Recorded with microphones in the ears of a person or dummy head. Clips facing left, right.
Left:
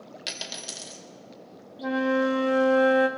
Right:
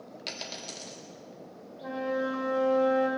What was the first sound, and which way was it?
A dropped coin, 20° left (ahead or behind).